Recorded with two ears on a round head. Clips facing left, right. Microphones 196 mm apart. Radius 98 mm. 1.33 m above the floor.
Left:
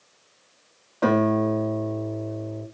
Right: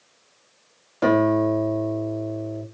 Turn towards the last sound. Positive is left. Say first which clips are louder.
# right 2 dB
turn(degrees=-25)  # may be behind; listen again after turning